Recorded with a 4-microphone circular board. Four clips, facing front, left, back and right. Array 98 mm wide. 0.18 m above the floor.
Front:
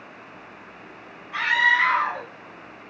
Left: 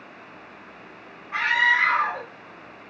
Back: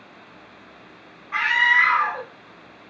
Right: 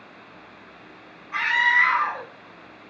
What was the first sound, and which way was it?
A scream, 165° left.